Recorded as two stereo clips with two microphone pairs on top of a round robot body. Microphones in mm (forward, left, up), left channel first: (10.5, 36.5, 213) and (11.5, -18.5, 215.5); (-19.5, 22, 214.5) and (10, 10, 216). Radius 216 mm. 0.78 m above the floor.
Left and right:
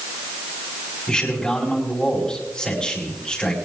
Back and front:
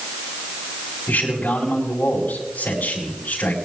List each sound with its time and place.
1.1 s a man speaking: 170° left, 4.5 m